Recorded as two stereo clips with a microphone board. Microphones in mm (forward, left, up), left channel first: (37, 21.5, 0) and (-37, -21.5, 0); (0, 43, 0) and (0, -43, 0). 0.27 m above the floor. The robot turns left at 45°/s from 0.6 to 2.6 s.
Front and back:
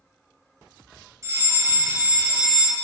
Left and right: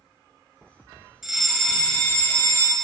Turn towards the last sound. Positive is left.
turn(degrees=130)